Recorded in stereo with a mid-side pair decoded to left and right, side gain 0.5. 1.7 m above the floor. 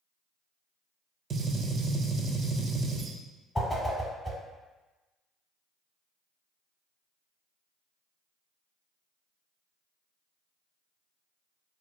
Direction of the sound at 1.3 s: 45° right.